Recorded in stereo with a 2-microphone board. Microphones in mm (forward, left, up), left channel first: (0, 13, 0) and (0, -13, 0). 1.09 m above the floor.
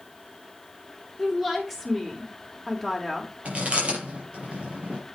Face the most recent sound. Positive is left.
turn(degrees=-50)  # may be behind; listen again after turning